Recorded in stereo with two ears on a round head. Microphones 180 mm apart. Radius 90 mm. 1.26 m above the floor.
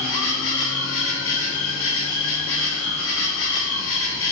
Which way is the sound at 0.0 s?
75° left (ahead or behind).